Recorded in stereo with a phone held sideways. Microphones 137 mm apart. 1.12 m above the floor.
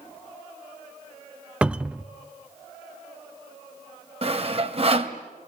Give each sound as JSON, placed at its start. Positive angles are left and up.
{"t": 1.6, "sound": "a cupboard door", "side_deg": -10, "distance_m": 0.6}
{"t": 4.2, "sound": "sawing", "side_deg": -45, "distance_m": 2.0}